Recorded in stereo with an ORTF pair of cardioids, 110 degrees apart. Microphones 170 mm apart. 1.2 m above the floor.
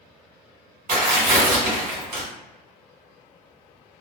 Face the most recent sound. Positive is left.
turn(degrees=-60)